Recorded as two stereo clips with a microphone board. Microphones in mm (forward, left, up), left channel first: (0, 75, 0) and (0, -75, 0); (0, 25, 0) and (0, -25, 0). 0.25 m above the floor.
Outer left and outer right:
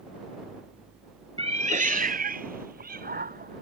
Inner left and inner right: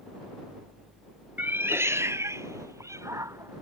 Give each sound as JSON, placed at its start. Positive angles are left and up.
{"t": 1.4, "sound": "a cat meowing", "side_deg": -40}